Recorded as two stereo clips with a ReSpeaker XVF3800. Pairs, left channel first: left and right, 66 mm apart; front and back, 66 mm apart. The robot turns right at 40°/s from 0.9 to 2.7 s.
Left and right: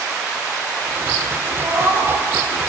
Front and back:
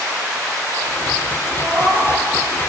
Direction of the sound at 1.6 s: 110° right.